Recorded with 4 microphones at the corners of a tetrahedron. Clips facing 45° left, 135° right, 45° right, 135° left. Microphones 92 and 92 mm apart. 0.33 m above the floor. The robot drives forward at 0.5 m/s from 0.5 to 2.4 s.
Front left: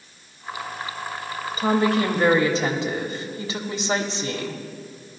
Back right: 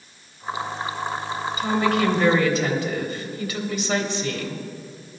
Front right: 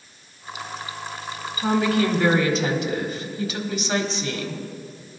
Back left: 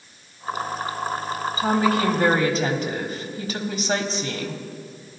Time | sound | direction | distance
1.6 | a woman speaking | 85° left | 1.4 m